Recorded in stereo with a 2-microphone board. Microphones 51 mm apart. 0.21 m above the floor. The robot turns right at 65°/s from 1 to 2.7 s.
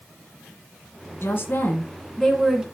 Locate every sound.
1.2 s a woman speaking: 105° left, 2 m; by 2.6 s 160° right, 2 m